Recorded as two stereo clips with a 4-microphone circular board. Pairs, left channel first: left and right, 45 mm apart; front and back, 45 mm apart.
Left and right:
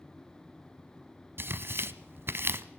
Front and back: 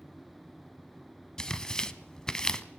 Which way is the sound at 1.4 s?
75° right.